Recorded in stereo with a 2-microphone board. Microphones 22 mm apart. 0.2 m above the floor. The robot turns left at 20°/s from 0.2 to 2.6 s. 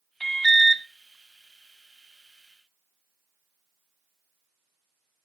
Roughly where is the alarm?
Centre.